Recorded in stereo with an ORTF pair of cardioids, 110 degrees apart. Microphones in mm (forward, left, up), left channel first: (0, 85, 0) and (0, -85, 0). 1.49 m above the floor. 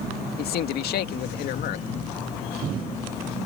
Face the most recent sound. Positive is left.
turn(degrees=70)